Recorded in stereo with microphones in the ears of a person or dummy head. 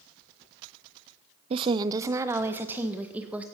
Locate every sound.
1.5 s a woman speaking: 35° right (ahead or behind), 0.5 m; by 3.4 s 5° right (ahead or behind), 1.9 m